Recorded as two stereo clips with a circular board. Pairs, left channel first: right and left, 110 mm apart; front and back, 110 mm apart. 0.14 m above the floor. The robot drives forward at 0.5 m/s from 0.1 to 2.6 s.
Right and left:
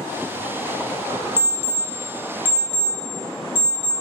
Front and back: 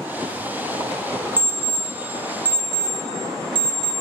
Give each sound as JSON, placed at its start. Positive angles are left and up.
{"t": 1.4, "sound": "an alarm clock", "azimuth_deg": -115, "distance_m": 0.8}